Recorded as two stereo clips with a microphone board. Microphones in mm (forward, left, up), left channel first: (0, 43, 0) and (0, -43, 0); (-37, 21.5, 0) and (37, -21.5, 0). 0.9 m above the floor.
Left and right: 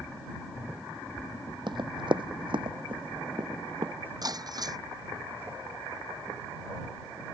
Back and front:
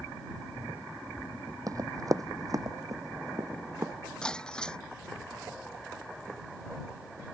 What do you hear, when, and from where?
1.7 s running footsteps: 75° right; by 3.9 s 80° right
4.2 s breaking glass: 130° right